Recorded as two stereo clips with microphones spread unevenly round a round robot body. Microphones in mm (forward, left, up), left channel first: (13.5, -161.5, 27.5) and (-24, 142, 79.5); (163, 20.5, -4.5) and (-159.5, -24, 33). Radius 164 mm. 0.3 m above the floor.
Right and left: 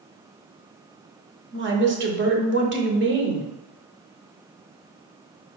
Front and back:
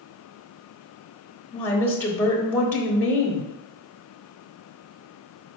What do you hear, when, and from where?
1.5 s a woman speaking: 70° left, 0.9 m